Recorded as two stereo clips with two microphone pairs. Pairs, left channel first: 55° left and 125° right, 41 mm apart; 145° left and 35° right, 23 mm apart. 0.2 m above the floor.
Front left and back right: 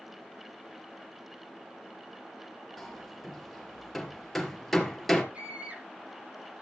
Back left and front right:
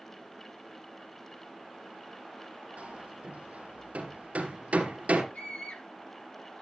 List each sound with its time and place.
2.8 s hammering: 35° right, 3 m
5.3 s a scream: 175° left, 10 m